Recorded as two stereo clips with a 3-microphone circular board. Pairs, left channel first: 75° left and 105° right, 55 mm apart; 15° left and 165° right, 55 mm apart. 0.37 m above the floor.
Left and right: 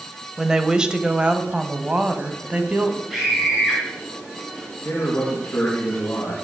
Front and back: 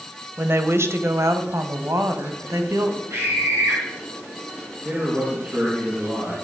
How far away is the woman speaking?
About 1.4 m.